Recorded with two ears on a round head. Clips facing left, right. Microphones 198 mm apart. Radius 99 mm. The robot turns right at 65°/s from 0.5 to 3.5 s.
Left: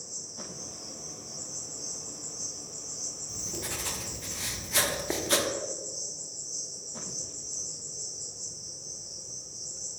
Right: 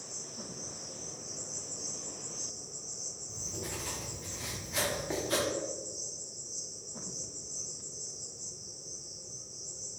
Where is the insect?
150° right, 1.6 m; by 10.0 s 45° left, 1.6 m.